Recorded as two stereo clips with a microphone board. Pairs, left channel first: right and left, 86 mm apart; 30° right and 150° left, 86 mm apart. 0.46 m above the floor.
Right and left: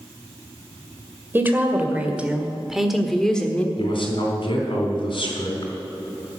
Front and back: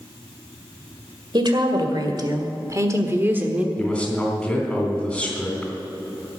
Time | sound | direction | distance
1.3 | a woman speaking | 155° left | 2 m
3.8 | a man speaking | 110° right | 3.5 m